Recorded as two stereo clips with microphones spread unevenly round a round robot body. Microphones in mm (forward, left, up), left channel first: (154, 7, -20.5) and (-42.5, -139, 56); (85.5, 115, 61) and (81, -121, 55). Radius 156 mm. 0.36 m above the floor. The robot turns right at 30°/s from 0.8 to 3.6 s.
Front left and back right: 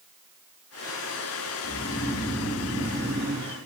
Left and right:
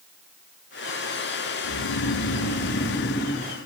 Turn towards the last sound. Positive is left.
turn(degrees=160)